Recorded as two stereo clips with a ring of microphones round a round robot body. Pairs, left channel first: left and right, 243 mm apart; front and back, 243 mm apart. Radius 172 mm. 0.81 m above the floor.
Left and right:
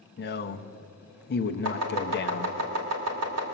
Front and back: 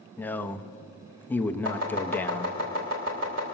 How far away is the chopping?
About 2.5 m.